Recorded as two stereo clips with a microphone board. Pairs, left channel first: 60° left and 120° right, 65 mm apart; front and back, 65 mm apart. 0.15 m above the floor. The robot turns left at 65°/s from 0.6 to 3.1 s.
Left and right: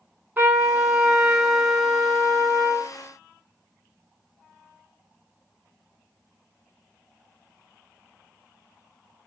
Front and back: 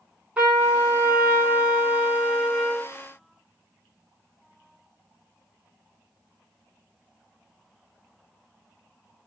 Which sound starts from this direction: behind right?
A trumpet, at 0.4 s.